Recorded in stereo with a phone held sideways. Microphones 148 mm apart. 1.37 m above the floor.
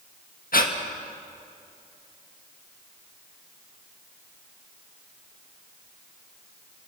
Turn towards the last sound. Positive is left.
turn(degrees=75)  # may be behind; listen again after turning